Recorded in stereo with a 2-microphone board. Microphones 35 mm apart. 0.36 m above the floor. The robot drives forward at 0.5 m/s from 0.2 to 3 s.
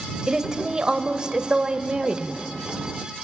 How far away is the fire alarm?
No fire alarm in this recording.